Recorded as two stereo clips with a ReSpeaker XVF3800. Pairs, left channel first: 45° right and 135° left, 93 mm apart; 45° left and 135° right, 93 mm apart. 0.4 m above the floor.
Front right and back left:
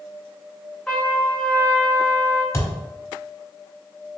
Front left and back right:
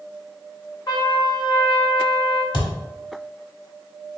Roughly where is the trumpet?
Ahead left.